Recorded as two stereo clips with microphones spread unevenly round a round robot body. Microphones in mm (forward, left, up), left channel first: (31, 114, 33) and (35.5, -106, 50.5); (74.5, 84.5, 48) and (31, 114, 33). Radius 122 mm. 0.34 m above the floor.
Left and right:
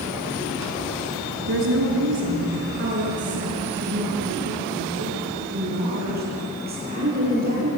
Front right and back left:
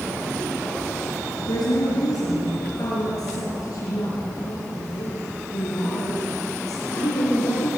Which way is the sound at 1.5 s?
60° right.